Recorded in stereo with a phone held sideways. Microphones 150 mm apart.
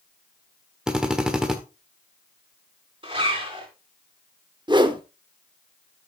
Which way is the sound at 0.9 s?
5° right (ahead or behind).